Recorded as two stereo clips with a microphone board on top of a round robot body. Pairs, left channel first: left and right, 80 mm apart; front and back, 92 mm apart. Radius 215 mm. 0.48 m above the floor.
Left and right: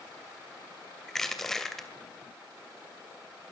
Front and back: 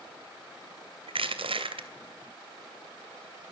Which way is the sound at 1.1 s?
175° left.